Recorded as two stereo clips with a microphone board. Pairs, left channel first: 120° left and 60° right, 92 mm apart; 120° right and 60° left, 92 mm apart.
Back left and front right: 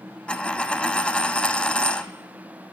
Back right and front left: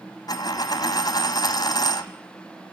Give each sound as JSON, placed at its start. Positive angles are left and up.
{"t": 0.3, "sound": "a dropped coin", "azimuth_deg": -165, "distance_m": 0.6}